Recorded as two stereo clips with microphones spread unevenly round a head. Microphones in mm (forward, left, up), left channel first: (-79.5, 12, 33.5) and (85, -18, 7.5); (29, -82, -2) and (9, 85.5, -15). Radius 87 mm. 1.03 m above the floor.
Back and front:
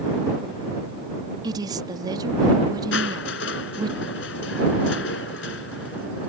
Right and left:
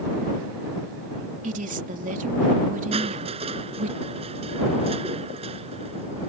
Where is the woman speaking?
55° left.